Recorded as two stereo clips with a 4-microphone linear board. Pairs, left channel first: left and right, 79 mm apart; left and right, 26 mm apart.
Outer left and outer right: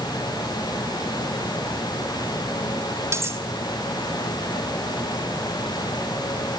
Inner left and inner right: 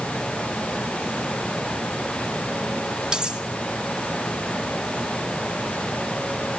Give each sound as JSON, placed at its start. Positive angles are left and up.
{"t": 3.1, "sound": "cutlery clinking", "side_deg": -35, "distance_m": 1.5}